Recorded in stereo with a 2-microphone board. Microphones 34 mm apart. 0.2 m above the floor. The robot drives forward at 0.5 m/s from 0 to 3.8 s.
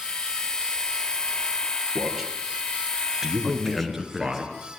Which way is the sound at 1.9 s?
5° right (ahead or behind).